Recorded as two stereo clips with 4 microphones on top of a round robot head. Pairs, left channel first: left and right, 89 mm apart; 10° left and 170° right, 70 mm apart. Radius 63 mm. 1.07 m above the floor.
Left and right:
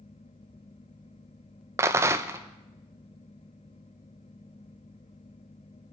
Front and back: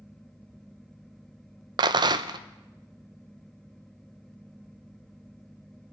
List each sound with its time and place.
1.8 s a rattle: 155° right, 0.5 m